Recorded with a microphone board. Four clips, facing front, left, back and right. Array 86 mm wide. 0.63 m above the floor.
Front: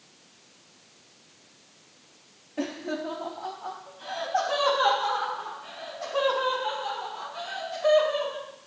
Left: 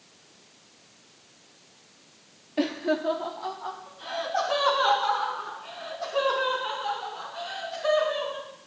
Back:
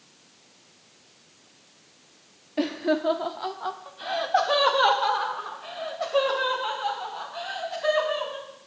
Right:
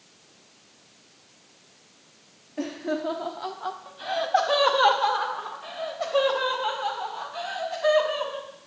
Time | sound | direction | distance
2.6 | laughter | 135° left | 0.6 m